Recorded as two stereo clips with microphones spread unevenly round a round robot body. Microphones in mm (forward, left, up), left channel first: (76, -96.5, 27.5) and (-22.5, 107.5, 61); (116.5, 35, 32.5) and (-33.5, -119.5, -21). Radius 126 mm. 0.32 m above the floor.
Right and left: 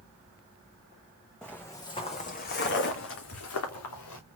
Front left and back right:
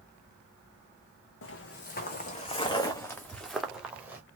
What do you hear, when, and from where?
1.4 s footsteps: 25° left, 1.4 m; by 4.2 s 50° right, 2 m